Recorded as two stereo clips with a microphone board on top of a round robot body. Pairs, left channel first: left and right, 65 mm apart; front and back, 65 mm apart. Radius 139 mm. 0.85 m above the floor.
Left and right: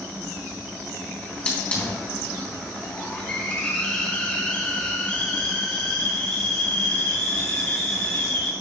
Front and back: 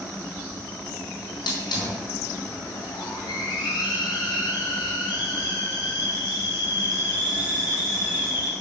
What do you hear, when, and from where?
1.2 s a hiss: 20° left, 2.5 m